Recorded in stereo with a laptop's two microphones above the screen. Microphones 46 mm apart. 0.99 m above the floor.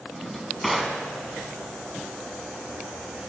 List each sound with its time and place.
0.1 s a drawer: centre (ahead or behind), 1.9 m